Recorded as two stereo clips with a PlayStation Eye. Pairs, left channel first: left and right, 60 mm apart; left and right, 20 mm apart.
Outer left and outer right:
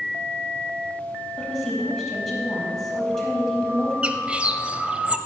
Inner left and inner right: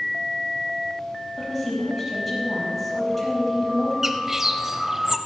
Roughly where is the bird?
Centre.